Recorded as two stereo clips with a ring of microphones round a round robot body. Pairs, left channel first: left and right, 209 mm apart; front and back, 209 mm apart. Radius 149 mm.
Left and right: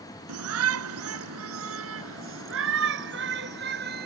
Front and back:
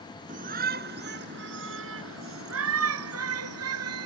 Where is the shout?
115° right; by 4.1 s 150° right.